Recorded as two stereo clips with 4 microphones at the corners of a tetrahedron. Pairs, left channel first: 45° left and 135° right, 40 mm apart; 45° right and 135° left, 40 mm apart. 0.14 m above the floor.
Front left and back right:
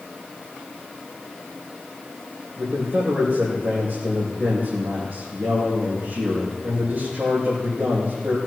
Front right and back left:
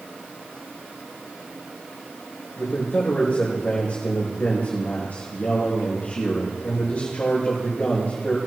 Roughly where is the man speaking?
Right.